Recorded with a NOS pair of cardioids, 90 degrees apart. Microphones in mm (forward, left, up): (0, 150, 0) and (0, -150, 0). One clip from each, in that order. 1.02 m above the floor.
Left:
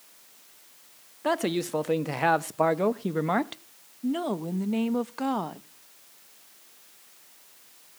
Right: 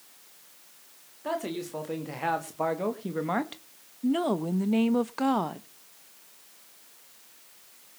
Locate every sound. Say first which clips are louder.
1.2 s a man speaking: left 5 dB; 60° left, 2 m; by 3.6 s 15° left, 1.4 m
4.0 s a woman speaking: right 2 dB; 10° right, 0.9 m